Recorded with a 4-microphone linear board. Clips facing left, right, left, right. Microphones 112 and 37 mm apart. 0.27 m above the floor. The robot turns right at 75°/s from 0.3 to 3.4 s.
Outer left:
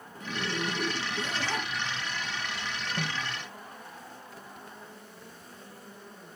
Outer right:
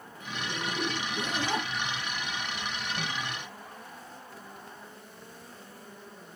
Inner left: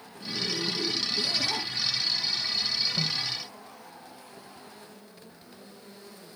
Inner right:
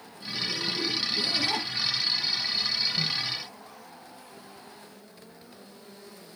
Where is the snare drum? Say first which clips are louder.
Outer left 3 dB, inner right 1 dB; 55° left (ahead or behind), 3 m; by 3.3 s 70° left (ahead or behind), 3 m.